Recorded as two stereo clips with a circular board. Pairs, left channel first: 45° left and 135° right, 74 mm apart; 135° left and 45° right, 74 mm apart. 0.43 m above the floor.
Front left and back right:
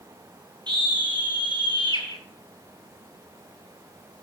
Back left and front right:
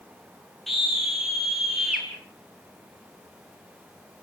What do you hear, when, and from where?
0.7 s a scream: 135° right, 10 m; by 2.1 s 130° right, 10.5 m